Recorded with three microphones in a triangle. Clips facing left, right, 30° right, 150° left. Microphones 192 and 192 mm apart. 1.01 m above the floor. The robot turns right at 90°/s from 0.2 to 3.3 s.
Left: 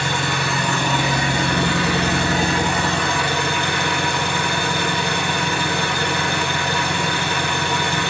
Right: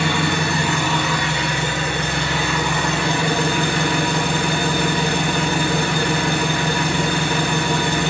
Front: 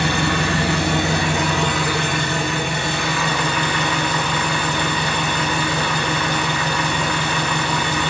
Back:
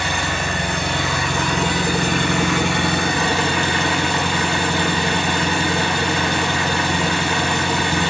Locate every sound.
0.0 s an engine running: 65° right, 1.3 m; by 8.1 s 145° right, 1.3 m